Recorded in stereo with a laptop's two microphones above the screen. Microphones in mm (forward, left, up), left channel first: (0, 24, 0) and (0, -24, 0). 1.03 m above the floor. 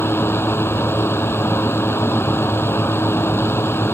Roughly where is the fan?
Left.